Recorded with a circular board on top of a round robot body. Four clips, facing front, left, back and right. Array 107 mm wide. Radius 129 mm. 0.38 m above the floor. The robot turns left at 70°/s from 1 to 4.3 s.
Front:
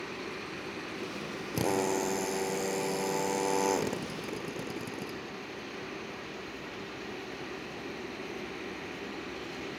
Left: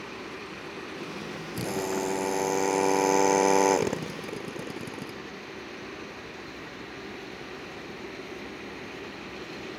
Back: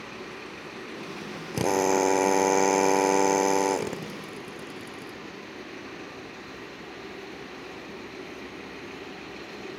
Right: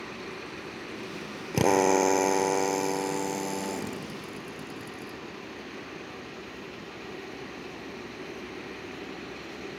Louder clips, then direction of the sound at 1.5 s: Right 9 dB, back 6 dB; 105° right.